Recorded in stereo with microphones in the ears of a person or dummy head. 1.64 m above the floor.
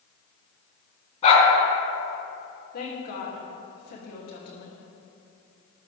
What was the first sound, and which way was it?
A dog barking, 40° left (ahead or behind).